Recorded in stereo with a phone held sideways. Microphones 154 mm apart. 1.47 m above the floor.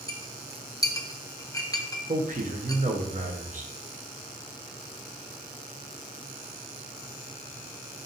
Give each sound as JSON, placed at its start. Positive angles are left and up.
{"t": 0.1, "sound": "a clink", "side_deg": 25, "distance_m": 0.5}
{"t": 2.1, "sound": "a man speaking", "side_deg": -55, "distance_m": 0.8}